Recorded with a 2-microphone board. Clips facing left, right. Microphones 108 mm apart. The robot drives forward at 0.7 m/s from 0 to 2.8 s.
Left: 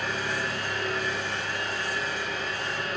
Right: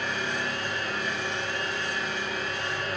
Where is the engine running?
70° left (ahead or behind), 4 m; by 3.0 s 75° left (ahead or behind), 3.5 m.